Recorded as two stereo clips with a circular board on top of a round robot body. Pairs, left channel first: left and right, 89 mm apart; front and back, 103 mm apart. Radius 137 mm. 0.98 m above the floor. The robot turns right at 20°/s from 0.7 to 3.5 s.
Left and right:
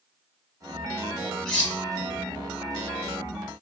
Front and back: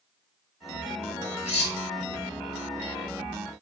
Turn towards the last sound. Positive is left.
turn(degrees=50)